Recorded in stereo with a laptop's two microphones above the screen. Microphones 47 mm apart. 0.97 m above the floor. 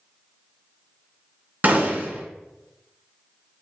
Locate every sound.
1.6 s a gunshot: 45° right (ahead or behind), 1.5 m